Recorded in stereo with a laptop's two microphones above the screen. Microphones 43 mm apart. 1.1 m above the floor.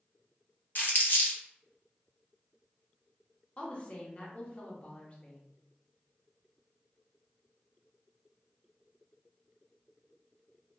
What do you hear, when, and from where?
0.8 s crumpling: 45° left (ahead or behind), 0.7 m
3.6 s a woman speaking: 30° left (ahead or behind), 0.8 m